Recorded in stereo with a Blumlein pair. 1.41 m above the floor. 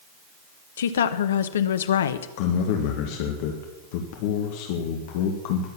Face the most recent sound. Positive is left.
turn(degrees=50)